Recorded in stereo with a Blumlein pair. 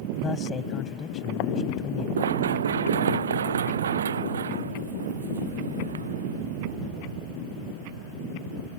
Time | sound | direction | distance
0.2 | a man speaking | 25° left | ?
2.2 | running footsteps | 65° right | ?